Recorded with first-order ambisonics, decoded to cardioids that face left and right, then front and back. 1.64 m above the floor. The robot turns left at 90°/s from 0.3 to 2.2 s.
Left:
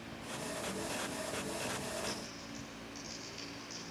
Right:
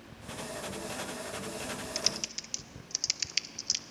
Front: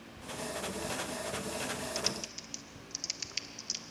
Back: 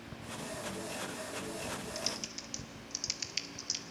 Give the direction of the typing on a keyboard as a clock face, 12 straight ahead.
2 o'clock.